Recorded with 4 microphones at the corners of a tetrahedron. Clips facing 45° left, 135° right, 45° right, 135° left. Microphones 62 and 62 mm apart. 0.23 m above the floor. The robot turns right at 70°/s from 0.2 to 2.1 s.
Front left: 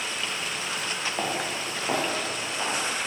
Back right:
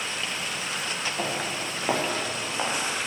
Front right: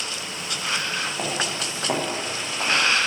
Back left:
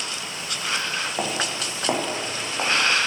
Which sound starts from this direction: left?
Footsteps, at 1.2 s.